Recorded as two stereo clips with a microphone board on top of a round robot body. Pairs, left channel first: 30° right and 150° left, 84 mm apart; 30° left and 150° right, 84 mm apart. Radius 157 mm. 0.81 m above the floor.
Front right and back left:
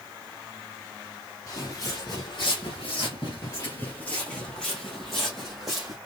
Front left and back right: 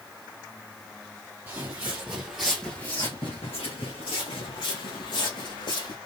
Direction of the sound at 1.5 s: 85° right.